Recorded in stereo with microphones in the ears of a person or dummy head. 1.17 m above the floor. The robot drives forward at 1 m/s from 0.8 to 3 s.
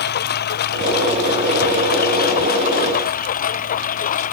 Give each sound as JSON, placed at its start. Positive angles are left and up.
{"t": 0.0, "sound": "a lawn mower", "side_deg": 55}